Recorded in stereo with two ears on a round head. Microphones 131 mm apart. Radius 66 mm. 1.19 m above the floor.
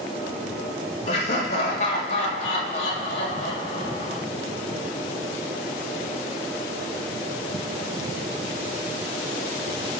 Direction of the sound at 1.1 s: 45° left (ahead or behind).